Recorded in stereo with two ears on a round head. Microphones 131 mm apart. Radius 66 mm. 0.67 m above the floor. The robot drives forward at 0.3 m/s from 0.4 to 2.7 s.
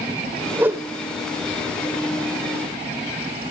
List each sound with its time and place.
0.6 s a whoosh: 15° right (ahead or behind), 0.6 m